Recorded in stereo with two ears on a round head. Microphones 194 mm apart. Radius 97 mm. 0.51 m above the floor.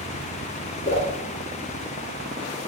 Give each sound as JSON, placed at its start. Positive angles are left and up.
{"t": 0.8, "sound": "a whoosh", "side_deg": 30, "distance_m": 1.2}